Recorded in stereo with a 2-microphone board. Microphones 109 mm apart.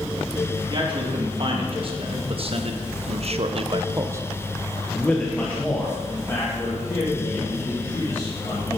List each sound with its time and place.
0.7 s a man speaking: 45° right (ahead or behind), 2.5 m; by 8.8 s 30° left (ahead or behind), 3.5 m